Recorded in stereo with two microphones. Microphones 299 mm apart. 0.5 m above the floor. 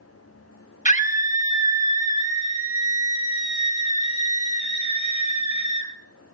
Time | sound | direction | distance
0.8 | a scream | 25° left (ahead or behind) | 1.6 m